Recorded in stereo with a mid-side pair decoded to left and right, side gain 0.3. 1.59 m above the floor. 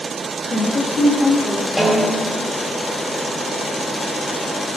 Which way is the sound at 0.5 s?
55° left.